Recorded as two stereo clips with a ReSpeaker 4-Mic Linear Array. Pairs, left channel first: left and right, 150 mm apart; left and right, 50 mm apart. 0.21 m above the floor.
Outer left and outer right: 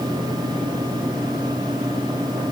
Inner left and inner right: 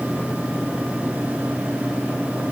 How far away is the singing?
I don't hear singing.